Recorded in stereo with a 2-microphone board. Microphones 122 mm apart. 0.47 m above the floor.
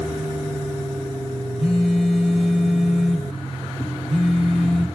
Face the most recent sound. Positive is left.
turn(degrees=5)  # may be behind; listen again after turning